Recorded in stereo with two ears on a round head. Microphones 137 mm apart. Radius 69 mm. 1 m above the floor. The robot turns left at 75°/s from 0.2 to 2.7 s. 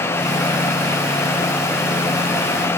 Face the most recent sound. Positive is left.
No sound to turn to.